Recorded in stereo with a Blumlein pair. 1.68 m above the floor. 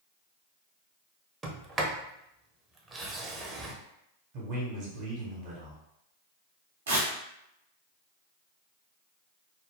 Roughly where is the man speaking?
Ahead right.